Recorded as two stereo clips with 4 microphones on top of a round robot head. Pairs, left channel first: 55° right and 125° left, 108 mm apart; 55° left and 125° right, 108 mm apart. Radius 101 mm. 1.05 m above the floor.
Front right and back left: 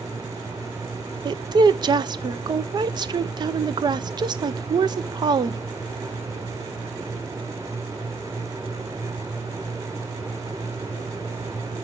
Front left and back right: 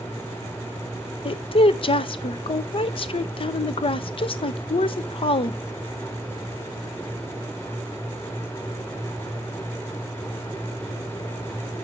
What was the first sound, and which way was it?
A woman speaking, 80° left.